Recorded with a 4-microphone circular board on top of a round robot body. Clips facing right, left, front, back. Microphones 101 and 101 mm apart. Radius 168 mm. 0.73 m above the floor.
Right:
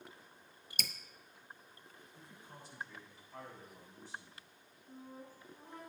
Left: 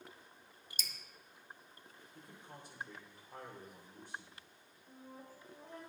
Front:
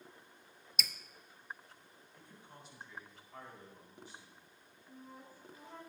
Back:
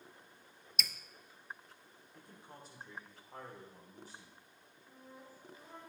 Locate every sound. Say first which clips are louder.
0.8 s dripping: right 6 dB, even; 90° right, 0.7 m
2.1 s a man speaking: left 2 dB, back 3 dB; 130° left, 2.5 m
4.9 s a flute: right 2 dB, front 2 dB; 95° left, 3 m